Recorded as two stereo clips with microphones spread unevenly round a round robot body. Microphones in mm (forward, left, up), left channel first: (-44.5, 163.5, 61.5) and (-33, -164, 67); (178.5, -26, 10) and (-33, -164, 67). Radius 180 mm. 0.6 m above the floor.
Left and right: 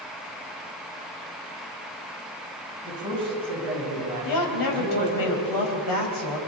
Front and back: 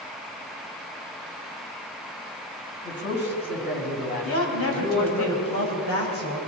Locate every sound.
2.9 s a man speaking: 10° right, 5 m; by 5.2 s 25° right, 6 m
4.2 s a woman speaking: 70° left, 4.5 m